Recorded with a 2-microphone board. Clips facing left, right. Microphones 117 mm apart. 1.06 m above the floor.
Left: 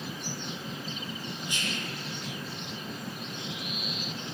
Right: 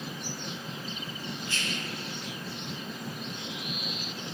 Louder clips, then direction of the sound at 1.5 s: Left 2 dB; 15° left (ahead or behind).